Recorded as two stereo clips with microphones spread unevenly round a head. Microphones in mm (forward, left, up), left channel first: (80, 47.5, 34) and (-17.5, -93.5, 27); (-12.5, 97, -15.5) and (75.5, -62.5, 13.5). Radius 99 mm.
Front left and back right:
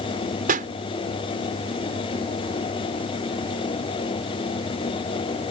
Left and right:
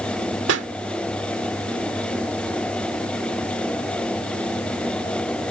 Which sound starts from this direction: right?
A pop, at 0.5 s.